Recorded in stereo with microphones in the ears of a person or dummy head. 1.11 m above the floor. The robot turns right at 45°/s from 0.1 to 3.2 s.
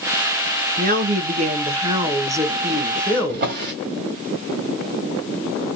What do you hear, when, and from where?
0.8 s a woman speaking: 90° right, 0.8 m; by 3.6 s 20° left, 0.8 m
3.3 s a drawer: 55° right (ahead or behind), 1.3 m